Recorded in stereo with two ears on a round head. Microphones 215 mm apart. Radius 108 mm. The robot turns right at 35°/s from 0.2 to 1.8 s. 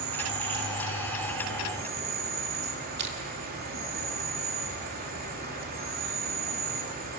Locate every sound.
0.0 s an insect: 95° right, 3.5 m; by 7.2 s 40° right, 3.5 m
3.0 s crushing: 45° right (ahead or behind), 2.5 m